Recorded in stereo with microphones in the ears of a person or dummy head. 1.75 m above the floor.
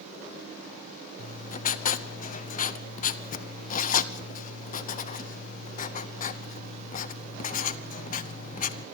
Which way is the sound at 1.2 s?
45° left (ahead or behind).